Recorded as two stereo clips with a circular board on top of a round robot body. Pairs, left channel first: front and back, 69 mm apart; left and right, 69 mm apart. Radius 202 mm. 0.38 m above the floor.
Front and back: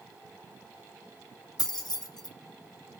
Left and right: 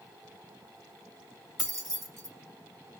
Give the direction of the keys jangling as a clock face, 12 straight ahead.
12 o'clock.